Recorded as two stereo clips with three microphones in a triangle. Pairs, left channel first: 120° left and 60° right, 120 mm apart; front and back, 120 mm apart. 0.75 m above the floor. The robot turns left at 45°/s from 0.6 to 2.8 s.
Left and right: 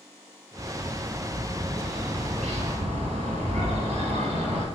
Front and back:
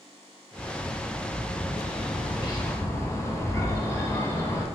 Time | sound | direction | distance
0.6 | a bird | 35° left | 1.2 m